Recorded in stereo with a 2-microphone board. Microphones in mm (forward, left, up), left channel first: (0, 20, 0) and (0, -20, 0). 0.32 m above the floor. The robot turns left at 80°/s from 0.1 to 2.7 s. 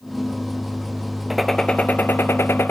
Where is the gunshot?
175° right, 1.1 m; by 2.7 s 75° left, 1.1 m.